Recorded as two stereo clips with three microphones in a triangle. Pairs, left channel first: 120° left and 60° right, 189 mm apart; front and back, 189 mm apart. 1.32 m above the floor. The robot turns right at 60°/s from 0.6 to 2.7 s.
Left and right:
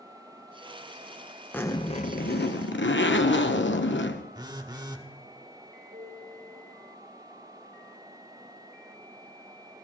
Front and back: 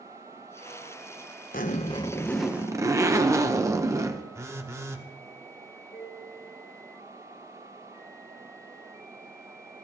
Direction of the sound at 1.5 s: 40° left.